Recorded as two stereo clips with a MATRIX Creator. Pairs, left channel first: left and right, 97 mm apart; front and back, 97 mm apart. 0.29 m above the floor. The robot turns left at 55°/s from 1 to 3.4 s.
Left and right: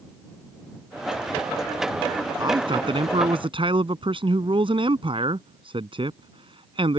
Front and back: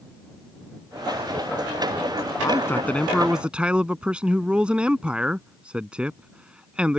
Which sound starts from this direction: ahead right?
A man speaking, at 2.4 s.